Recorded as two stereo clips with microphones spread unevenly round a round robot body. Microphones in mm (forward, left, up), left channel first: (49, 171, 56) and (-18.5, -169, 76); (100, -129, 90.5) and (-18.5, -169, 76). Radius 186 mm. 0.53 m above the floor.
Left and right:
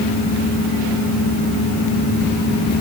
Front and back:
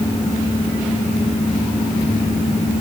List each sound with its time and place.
Only background noise.